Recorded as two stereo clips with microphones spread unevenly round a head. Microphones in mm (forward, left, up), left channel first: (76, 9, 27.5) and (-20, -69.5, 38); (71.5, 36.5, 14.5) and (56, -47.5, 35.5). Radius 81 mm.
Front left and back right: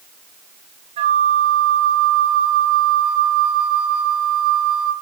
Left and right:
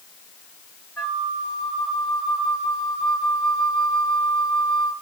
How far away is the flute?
About 0.9 m.